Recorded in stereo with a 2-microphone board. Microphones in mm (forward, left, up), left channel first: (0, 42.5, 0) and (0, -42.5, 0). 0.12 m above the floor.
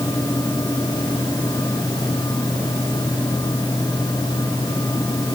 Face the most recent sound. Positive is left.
No sound to turn to.